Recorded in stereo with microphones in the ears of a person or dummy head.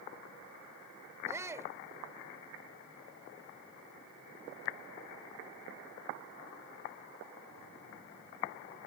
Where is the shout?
20° right (ahead or behind).